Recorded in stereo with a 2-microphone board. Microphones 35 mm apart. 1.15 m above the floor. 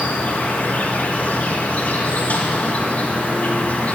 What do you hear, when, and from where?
0.0 s an insect: 45° left (ahead or behind), 1.5 m